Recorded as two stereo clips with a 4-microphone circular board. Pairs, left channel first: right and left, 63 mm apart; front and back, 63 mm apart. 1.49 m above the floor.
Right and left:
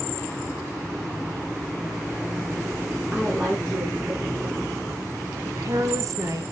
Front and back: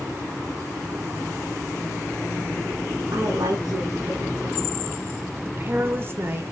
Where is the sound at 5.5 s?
125° left, 1.8 m.